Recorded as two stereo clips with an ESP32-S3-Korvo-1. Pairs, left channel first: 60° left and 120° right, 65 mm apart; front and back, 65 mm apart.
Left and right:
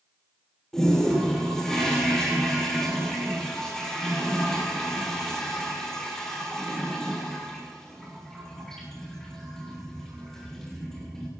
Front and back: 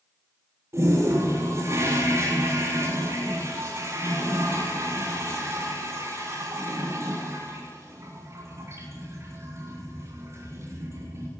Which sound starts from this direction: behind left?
A toilet flushing, at 0.7 s.